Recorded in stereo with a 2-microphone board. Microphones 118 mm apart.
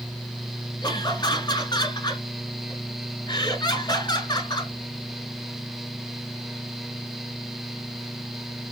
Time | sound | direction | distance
0.8 | laughter | 40° left (ahead or behind) | 1.3 m